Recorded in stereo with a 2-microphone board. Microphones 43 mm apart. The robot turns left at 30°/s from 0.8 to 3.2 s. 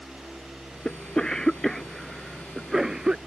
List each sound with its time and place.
0.8 s a cough: 25° left (ahead or behind); by 3.2 s 15° right (ahead or behind)